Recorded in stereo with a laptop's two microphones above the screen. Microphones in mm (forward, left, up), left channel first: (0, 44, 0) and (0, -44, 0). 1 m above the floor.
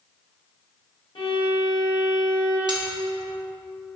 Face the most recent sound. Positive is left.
turn(degrees=-55)  # may be behind; listen again after turning